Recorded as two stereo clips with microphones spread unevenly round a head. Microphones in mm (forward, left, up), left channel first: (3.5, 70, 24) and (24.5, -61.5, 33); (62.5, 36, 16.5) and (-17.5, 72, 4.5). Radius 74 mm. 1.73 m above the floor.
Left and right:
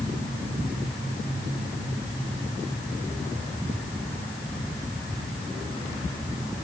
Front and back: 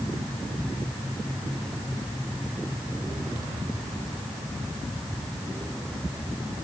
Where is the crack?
No crack in this recording.